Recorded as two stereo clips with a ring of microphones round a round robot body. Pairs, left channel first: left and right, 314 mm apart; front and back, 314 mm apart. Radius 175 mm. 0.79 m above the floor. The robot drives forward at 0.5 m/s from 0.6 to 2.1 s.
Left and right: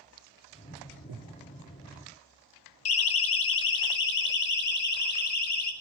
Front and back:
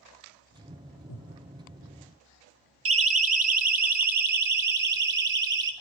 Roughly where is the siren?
Behind left.